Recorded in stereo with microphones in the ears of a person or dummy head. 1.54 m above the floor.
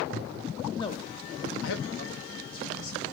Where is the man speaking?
15° left (ahead or behind), 0.7 m; by 3.0 s 50° left (ahead or behind), 2 m.